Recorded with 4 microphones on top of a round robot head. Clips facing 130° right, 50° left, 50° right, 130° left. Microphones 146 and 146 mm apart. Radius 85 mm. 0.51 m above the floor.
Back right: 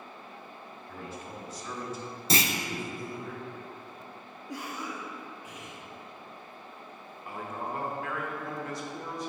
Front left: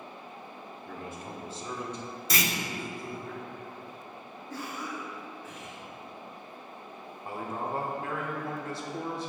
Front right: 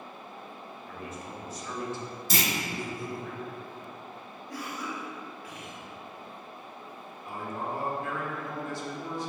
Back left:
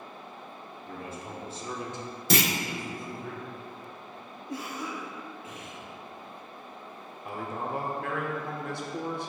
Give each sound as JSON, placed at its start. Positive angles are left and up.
{"t": 0.9, "sound": "a man speaking", "azimuth_deg": 75, "distance_m": 1.6}
{"t": 2.3, "sound": "a clunk", "azimuth_deg": 165, "distance_m": 0.5}
{"t": 4.5, "sound": "a cough", "azimuth_deg": 170, "distance_m": 1.0}
{"t": 7.2, "sound": "a man speaking", "azimuth_deg": 105, "distance_m": 1.2}